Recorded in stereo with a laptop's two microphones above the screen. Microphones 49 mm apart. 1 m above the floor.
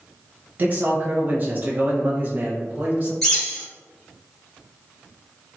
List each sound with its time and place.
0.6 s a man speaking: 35° right (ahead or behind), 0.9 m
3.2 s a bird: 10° left (ahead or behind), 1.8 m